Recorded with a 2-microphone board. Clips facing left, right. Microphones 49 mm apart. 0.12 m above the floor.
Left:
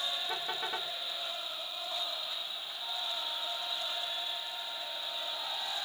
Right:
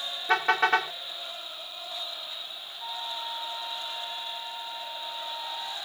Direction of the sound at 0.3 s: 85° right.